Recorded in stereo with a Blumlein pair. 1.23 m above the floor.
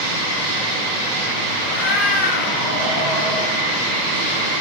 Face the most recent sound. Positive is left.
turn(degrees=25)